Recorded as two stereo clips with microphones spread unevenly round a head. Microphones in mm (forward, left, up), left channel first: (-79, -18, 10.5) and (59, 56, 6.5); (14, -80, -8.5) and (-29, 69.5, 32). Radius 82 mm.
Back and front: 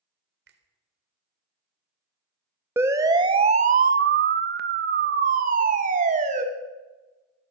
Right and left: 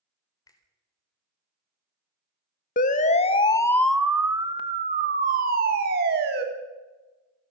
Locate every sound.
0.5 s a finger snap: 5° right, 4 m
2.8 s a siren: 50° right, 2 m; by 6.4 s 75° left, 4 m